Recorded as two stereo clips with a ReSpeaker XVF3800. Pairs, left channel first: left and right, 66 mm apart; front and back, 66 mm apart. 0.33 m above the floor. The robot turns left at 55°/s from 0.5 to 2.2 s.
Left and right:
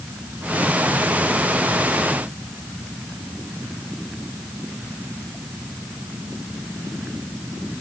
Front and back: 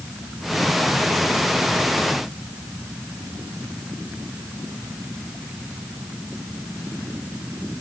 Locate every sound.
Only background noise.